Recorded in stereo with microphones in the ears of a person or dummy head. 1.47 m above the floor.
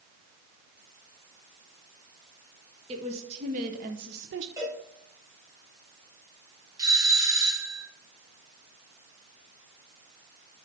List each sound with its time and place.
2.9 s a woman speaking: 30° right (ahead or behind), 1.5 m; by 4.5 s 60° right (ahead or behind), 0.8 m
4.6 s a cowbell: 20° right (ahead or behind), 5.5 m
6.8 s a doorbell: 15° right (ahead or behind), 1.4 m